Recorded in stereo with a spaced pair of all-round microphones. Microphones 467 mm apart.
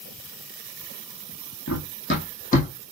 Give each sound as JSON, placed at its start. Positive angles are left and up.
{"t": 1.7, "sound": "running footsteps", "side_deg": 30, "distance_m": 2.5}